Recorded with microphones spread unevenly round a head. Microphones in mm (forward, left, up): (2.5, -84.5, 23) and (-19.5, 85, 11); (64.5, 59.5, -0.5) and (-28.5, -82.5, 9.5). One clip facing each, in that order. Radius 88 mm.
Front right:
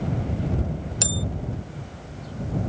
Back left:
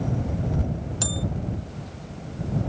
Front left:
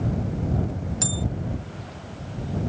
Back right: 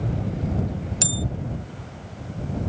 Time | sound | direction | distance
1.0 | a bell | 120° right | ?